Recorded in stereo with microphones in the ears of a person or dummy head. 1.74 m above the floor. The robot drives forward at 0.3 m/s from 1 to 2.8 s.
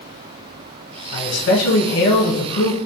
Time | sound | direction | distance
1.1 | a man speaking | 60° left (ahead or behind) | 1.4 m